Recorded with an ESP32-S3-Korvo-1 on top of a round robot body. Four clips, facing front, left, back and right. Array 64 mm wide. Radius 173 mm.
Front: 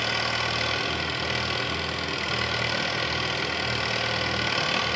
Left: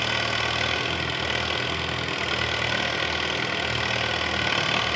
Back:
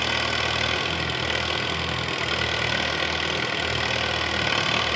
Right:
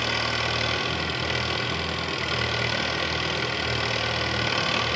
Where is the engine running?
135° left, 0.9 m.